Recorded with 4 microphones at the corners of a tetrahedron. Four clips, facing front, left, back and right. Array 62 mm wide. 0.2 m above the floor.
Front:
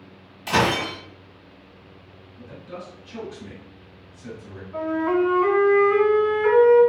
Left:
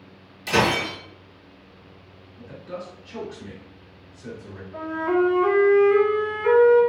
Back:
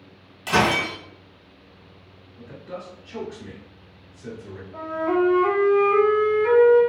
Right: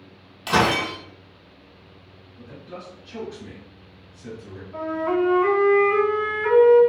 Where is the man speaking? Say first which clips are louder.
Left 3 dB, back 1 dB; 170° left, 1.2 m.